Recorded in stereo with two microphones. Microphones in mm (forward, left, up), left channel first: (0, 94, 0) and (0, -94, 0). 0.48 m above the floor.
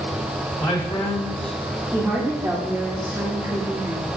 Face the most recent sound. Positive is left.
turn(degrees=-10)  # may be behind; listen again after turning